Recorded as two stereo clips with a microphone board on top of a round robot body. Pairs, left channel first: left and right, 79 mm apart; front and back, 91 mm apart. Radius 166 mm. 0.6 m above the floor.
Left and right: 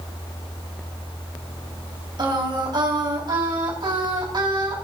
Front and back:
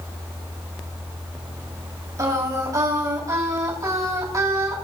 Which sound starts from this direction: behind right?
Singing, at 2.2 s.